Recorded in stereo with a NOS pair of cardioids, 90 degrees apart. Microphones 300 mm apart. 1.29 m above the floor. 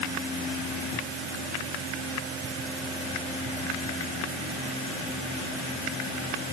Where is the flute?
No flute in this recording.